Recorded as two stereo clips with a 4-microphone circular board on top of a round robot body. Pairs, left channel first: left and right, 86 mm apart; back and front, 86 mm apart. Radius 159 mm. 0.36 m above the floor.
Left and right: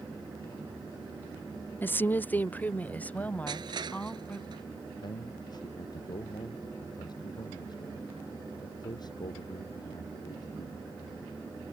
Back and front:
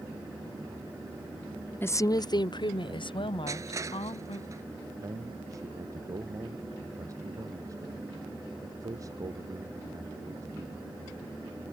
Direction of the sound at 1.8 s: 135° left.